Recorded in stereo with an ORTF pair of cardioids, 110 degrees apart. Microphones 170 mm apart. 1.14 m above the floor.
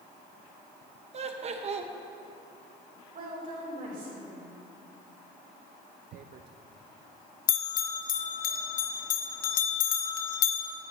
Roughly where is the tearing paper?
Ahead right.